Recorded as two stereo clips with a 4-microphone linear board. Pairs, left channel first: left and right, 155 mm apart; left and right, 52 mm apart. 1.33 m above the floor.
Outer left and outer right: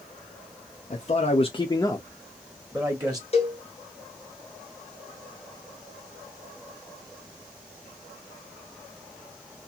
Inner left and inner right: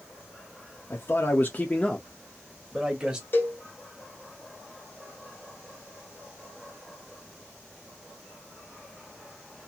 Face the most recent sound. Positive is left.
turn(degrees=40)  # may be behind; listen again after turning